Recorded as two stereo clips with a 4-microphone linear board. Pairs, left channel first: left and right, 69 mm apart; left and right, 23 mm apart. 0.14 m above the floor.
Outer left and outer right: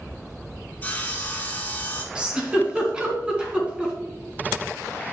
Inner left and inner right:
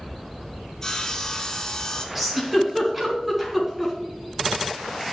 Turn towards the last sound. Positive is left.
turn(degrees=-15)  # may be behind; listen again after turning